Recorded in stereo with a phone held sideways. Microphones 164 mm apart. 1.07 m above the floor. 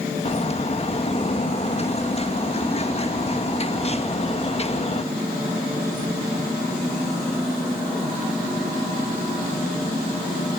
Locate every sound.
0.2 s a bird: 40° left (ahead or behind), 1.5 m